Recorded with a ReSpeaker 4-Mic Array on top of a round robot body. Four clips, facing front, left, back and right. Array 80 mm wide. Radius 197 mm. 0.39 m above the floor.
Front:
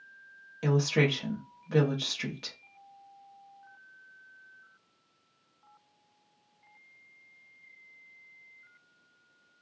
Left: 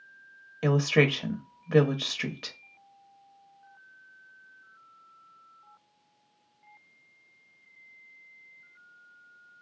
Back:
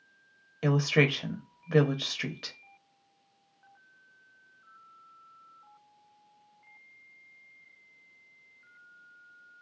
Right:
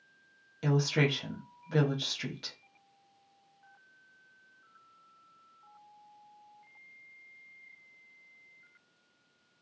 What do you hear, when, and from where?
0.6 s a woman speaking: 115° left, 0.9 m